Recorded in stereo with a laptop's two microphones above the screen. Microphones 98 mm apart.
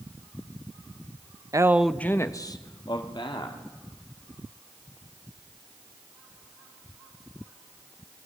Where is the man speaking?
35° right (ahead or behind), 0.6 m; by 3.6 s 55° left (ahead or behind), 2 m.